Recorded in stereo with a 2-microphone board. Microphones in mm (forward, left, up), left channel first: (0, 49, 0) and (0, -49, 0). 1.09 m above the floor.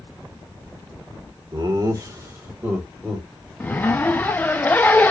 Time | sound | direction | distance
1.5 | laughter | 45° right (ahead or behind) | 1.3 m
3.6 | a zipper | 15° left (ahead or behind) | 0.6 m